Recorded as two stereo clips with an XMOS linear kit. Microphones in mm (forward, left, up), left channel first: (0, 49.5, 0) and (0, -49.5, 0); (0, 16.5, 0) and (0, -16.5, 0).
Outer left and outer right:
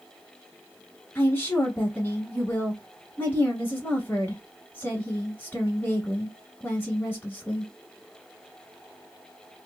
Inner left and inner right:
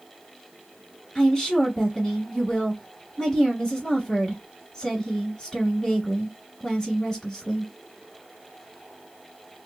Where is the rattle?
No rattle in this recording.